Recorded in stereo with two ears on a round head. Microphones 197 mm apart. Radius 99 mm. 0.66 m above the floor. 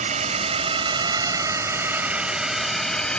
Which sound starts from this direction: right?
A drone, at 0.0 s.